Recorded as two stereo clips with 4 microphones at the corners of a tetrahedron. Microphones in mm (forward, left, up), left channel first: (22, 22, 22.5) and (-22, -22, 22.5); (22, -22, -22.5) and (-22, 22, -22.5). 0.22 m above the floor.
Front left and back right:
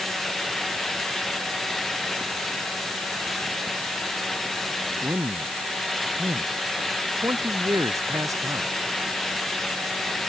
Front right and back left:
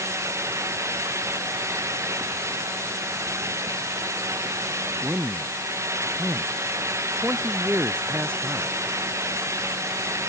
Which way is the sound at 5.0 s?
165° right.